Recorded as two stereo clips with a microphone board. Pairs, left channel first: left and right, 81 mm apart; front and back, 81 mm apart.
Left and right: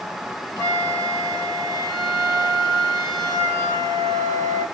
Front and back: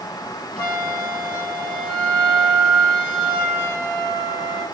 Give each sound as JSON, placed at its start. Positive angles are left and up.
{"t": 0.6, "sound": "a flute", "azimuth_deg": 80, "distance_m": 2.5}